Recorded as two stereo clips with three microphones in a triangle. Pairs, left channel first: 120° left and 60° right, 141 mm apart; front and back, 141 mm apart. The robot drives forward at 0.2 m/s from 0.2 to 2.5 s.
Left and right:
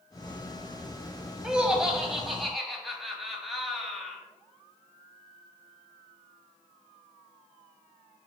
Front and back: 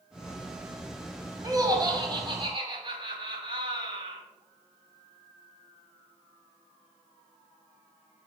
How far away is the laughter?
About 1.1 m.